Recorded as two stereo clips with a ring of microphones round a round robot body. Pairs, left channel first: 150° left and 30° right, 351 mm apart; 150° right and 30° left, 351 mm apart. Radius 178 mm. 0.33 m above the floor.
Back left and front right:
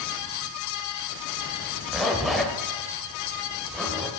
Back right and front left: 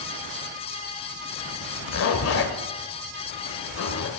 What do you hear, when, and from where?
1.9 s a zipper: 120° right, 1.4 m